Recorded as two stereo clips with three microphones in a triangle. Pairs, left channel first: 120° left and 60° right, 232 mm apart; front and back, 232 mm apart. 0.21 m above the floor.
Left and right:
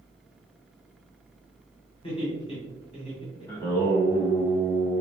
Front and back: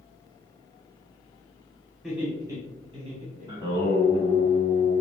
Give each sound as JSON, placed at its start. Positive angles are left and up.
{"t": 2.0, "sound": "laughter", "azimuth_deg": 95, "distance_m": 1.4}
{"t": 3.5, "sound": "singing", "azimuth_deg": 55, "distance_m": 1.2}